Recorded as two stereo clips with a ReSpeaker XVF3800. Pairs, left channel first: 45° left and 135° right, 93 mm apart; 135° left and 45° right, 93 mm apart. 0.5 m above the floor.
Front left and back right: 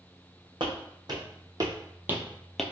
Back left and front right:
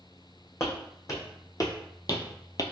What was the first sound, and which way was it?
Footsteps, 170° right.